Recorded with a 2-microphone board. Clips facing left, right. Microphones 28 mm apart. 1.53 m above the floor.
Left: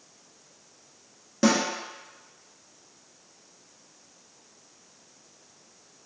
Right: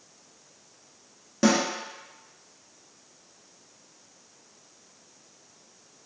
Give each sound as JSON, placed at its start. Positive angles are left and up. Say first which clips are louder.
{"t": 1.4, "sound": "a snare drum", "louder": "even", "side_deg": 0, "distance_m": 0.6}